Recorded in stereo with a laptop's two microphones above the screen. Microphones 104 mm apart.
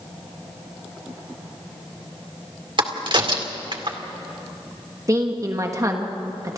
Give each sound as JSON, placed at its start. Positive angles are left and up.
{"t": 2.8, "sound": "a crack", "side_deg": -50, "distance_m": 2.0}
{"t": 5.1, "sound": "a woman speaking", "side_deg": -30, "distance_m": 1.3}